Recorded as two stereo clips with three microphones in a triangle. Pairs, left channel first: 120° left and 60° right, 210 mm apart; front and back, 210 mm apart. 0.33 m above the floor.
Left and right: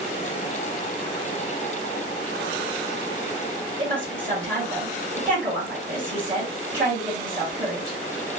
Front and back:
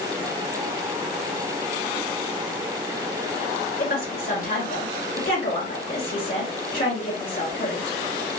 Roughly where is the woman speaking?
Ahead.